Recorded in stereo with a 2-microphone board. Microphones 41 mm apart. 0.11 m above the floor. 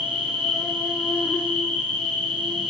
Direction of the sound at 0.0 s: 45° left (ahead or behind).